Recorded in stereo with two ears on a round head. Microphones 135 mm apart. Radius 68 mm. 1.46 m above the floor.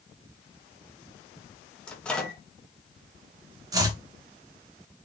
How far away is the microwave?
About 1.1 m.